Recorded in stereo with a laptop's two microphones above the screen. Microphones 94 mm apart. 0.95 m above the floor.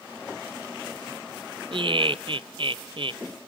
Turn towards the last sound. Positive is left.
turn(degrees=-60)  # may be behind; listen again after turning